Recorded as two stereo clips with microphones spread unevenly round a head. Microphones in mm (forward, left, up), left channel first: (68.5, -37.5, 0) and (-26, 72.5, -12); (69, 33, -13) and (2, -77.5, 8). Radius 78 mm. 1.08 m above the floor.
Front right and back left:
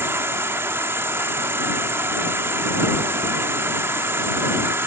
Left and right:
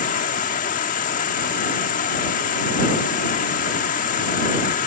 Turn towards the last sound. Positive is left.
turn(degrees=55)